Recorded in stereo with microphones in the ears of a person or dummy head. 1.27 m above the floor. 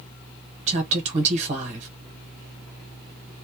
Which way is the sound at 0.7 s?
40° right (ahead or behind).